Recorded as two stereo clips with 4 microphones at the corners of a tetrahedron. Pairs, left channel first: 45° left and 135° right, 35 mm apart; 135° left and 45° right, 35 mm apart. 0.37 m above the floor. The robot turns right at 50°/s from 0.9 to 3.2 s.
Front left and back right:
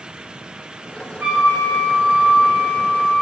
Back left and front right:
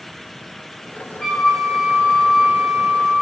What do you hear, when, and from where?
1.2 s a flute: 145° right, 1.0 m; by 3.2 s 45° right, 1.0 m